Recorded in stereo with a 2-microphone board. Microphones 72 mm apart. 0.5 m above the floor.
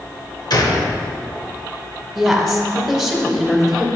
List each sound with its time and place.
0.5 s a gunshot: 65° left (ahead or behind), 0.9 m
2.1 s a woman speaking: centre (ahead or behind), 1.4 m